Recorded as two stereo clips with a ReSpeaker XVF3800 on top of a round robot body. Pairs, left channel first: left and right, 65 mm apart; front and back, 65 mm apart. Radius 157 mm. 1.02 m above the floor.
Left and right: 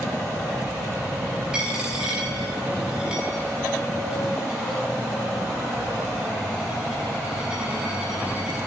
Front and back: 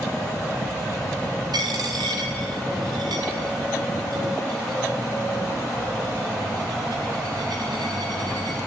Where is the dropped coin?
170° right, 2.5 m.